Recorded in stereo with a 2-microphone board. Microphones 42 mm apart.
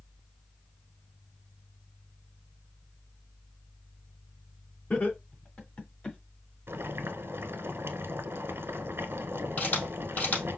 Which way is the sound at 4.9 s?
45° left (ahead or behind).